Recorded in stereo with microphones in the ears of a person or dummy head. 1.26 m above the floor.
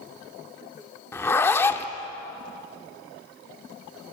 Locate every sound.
1.1 s a zipper: 15° left (ahead or behind), 1.2 m